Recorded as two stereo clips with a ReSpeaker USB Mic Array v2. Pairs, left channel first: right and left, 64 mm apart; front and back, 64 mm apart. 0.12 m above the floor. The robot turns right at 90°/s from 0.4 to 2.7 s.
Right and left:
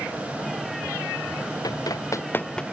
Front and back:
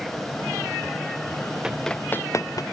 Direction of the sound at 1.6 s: 100° right.